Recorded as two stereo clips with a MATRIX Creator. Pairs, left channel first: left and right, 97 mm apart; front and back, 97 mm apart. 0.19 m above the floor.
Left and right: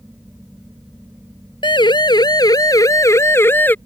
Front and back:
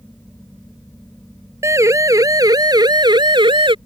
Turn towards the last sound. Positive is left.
turn(degrees=160)